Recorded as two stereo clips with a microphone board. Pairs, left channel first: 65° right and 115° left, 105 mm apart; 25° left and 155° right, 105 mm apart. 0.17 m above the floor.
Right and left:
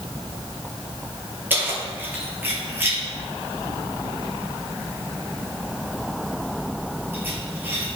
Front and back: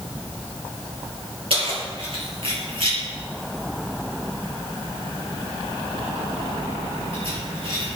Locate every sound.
1.5 s keys jangling: straight behind, 2.5 m